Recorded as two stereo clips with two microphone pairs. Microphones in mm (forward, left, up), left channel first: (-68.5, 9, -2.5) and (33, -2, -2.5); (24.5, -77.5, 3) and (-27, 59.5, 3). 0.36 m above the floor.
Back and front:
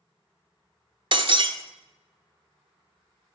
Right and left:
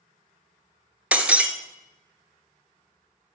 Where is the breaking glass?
30° left, 0.9 m.